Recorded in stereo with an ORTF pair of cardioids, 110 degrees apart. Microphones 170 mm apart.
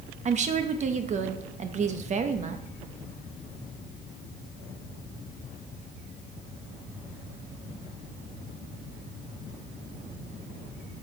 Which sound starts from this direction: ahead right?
A woman speaking, at 0.2 s.